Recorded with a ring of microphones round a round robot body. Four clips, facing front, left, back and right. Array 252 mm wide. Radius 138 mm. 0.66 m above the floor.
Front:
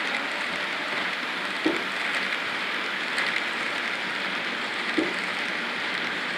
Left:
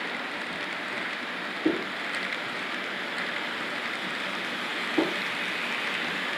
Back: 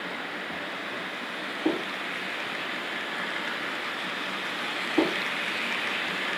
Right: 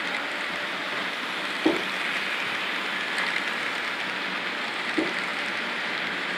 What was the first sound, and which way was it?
Only background noise.